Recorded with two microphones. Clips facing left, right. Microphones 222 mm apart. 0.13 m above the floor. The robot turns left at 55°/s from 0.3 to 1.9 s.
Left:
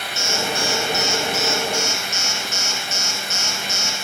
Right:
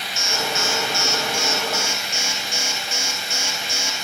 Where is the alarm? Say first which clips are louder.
Left 2 dB; 70° left, 3 m; by 3.9 s 20° right, 3 m.